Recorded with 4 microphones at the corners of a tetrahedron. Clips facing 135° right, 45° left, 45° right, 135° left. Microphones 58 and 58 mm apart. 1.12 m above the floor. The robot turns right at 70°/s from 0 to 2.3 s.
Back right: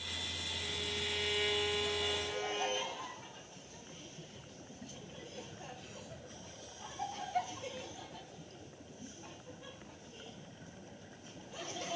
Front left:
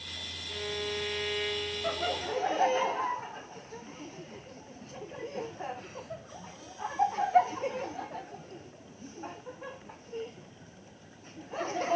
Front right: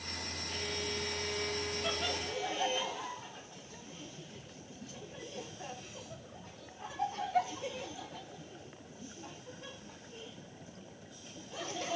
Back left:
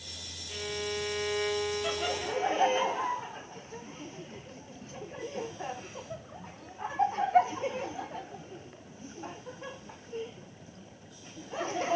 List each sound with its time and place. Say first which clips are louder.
0.5 s a violin: front left 8 dB, back left 5 dB; 65° left, 1.0 m; by 2.8 s 170° right, 1.0 m
1.8 s laughter: front left 5 dB, back left 4 dB; 55° left, 0.6 m; by 12.0 s 85° left, 0.6 m